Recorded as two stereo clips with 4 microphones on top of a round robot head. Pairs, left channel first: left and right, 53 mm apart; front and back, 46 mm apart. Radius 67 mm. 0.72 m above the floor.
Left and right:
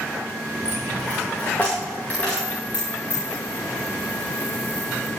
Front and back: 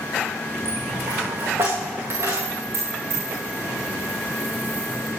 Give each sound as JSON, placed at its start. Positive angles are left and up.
{"t": 0.7, "sound": "a dropped coin", "azimuth_deg": 155, "distance_m": 7.5}